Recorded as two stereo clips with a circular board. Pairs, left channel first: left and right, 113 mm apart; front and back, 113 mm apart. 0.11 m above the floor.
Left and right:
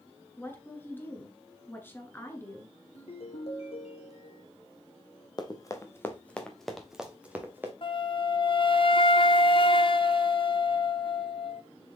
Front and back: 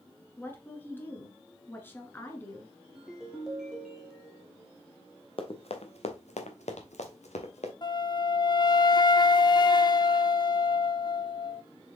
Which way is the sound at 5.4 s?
40° left.